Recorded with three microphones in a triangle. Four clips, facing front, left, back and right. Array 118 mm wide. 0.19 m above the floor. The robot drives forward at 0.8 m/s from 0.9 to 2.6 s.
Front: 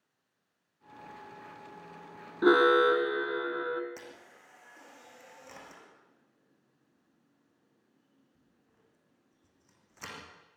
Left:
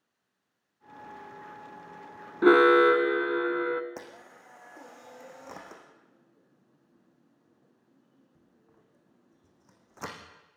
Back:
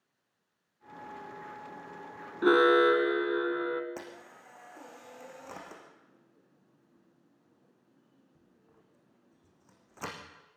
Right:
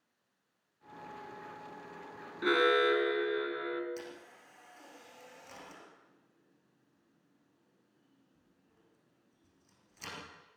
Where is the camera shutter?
125° left, 5 m.